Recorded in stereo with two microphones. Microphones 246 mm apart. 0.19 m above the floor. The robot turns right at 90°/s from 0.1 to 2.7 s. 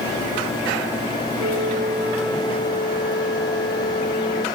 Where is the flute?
75° right; by 4.5 s 40° left.